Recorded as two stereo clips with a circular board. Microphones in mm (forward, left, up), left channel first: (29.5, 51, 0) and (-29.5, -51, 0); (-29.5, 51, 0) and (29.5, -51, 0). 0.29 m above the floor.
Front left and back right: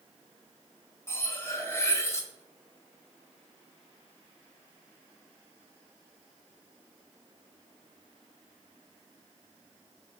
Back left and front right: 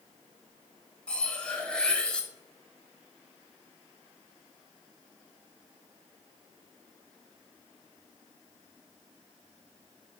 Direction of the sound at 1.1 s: 55° left.